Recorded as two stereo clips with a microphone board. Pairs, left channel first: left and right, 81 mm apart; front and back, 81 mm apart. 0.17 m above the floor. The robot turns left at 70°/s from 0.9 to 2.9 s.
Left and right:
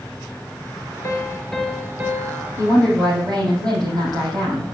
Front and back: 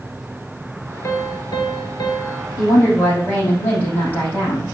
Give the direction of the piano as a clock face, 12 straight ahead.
11 o'clock.